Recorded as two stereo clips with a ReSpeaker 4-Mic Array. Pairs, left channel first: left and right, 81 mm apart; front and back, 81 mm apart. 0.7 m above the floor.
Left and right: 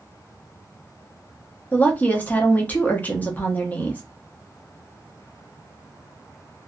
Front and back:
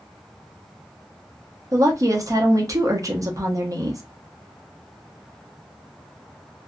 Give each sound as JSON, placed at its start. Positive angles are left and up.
{"t": 1.7, "sound": "a woman speaking", "azimuth_deg": 155, "distance_m": 0.7}